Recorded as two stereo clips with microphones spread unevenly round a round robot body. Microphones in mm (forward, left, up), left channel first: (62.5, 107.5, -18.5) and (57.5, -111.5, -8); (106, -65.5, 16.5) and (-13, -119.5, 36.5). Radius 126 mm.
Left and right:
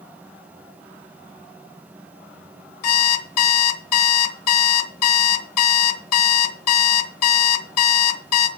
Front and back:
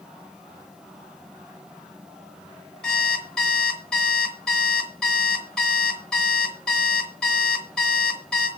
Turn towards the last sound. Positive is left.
turn(degrees=110)